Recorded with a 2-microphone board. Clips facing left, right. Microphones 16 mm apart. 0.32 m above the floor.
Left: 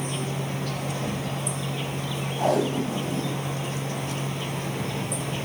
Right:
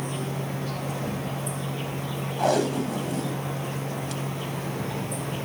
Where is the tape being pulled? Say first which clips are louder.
Even; 60° right (ahead or behind), 0.9 m.